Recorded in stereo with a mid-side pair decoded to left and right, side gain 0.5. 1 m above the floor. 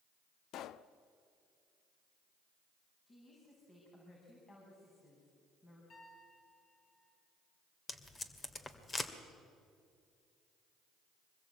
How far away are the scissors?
I don't hear scissors.